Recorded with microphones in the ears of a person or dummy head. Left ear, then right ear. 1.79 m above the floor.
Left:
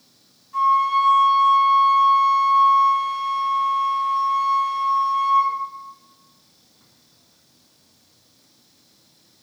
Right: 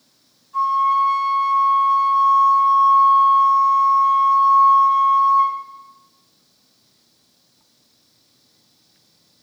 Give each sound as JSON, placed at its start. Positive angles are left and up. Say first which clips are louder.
{"t": 0.5, "sound": "a flute", "louder": "even", "side_deg": 30, "distance_m": 3.0}